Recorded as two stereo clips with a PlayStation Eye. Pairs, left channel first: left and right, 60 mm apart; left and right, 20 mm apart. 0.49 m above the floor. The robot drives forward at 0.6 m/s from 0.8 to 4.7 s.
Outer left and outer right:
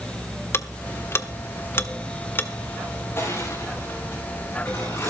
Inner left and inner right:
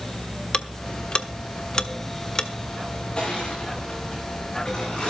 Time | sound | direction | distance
0.5 | ticking | 40° left (ahead or behind) | 1.0 m
3.2 | crushing | 40° left (ahead or behind) | 9 m